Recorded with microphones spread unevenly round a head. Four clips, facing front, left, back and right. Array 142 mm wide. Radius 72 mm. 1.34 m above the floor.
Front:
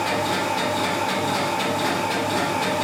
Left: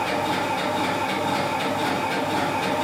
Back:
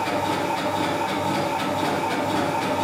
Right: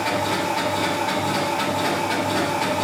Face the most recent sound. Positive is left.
turn(degrees=-110)